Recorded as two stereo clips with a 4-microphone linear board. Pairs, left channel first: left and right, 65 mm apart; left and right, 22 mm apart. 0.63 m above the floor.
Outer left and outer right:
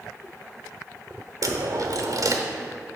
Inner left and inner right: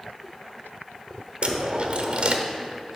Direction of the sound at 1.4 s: 65° right (ahead or behind).